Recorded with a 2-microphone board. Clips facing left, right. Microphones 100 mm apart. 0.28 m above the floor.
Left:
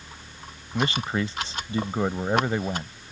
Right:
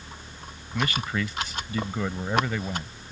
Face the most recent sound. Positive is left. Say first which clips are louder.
# left 2 dB
turn(degrees=30)  # may be behind; listen again after turning